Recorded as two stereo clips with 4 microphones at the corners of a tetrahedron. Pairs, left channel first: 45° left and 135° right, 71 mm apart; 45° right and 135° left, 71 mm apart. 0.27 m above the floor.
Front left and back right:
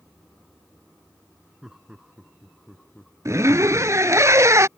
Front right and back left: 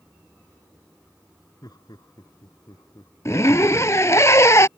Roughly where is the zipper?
Right.